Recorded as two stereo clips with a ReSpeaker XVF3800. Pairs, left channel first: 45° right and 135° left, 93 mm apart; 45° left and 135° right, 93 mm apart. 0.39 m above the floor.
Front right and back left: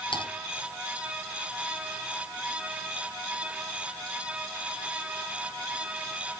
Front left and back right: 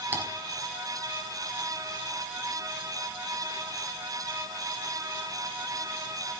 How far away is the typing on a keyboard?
About 3 m.